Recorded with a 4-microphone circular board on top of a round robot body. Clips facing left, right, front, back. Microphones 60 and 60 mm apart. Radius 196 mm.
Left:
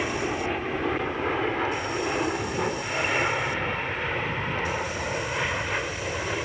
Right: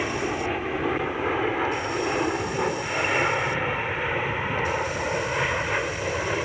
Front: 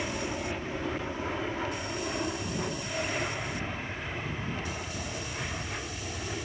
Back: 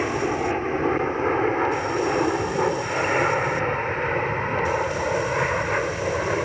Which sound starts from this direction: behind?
An aircraft, at 0.0 s.